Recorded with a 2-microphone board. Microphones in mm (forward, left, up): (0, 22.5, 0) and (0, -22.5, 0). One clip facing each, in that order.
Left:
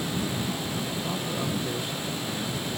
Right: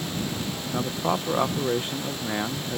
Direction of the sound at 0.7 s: 50° right (ahead or behind).